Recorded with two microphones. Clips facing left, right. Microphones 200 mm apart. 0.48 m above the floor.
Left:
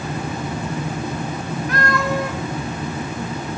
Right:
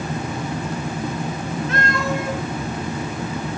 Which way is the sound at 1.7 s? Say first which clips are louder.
Left 3 dB; 25° right (ahead or behind).